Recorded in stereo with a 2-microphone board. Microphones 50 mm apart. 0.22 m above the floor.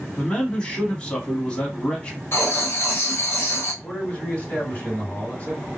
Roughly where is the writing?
Left.